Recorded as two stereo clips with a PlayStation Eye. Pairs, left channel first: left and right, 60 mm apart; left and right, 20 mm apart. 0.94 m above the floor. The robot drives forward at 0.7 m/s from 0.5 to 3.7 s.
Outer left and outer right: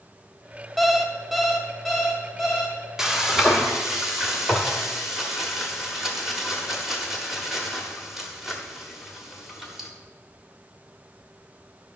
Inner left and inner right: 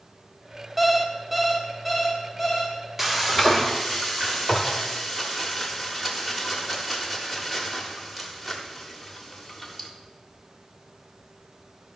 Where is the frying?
5° right (ahead or behind), 1.0 m.